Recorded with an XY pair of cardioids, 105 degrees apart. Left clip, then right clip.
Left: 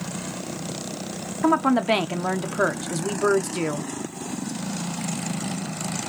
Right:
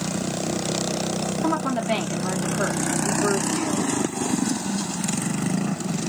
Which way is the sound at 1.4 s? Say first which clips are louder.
Left 6 dB; 55° left.